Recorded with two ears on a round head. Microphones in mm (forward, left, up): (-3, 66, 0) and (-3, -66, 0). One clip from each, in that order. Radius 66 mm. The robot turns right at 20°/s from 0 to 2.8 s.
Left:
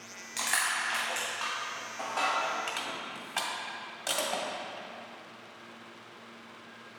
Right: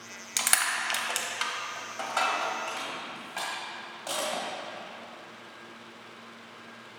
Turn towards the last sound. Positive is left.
turn(degrees=30)  # may be behind; listen again after turning